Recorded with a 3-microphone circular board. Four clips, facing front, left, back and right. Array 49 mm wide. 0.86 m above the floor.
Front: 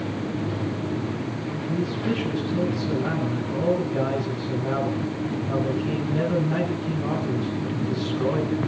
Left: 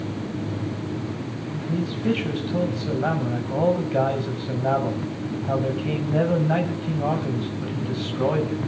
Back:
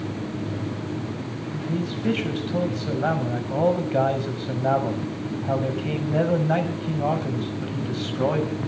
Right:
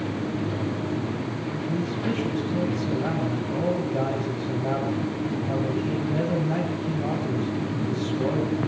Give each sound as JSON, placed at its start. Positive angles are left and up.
{"t": 1.5, "sound": "a man speaking", "azimuth_deg": 145, "distance_m": 6.0}